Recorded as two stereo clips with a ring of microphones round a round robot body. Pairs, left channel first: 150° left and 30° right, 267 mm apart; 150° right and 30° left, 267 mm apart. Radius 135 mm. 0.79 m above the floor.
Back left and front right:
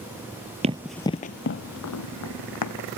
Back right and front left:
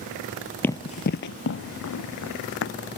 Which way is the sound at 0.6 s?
75° right.